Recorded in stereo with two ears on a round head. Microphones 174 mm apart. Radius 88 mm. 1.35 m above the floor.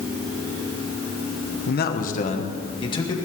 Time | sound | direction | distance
1.7 | a man speaking | 60° left (ahead or behind) | 1.1 m